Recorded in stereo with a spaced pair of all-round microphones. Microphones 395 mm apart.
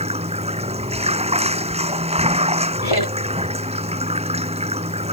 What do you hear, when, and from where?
0.0 s running water: 15° right (ahead or behind)
2.8 s laughter: 75° left (ahead or behind)